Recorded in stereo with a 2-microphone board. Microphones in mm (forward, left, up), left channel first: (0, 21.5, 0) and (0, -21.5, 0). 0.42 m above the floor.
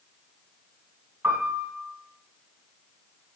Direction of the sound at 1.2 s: 65° right (ahead or behind).